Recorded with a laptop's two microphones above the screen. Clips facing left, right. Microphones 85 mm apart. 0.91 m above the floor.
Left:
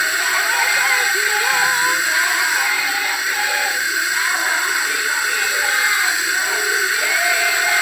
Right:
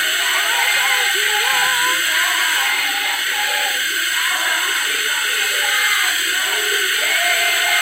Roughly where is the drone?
Centre.